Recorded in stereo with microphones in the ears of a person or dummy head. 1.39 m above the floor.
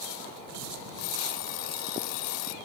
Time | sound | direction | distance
1.0 | an alarm clock | 80° left | ?